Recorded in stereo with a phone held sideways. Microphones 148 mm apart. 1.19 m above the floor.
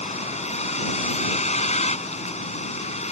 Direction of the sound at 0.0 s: 50° left (ahead or behind).